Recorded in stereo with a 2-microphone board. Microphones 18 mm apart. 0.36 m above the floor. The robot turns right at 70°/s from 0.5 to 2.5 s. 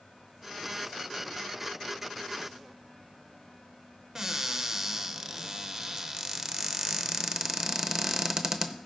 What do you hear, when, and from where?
4.2 s a cupboard door: 25° right (ahead or behind), 0.7 m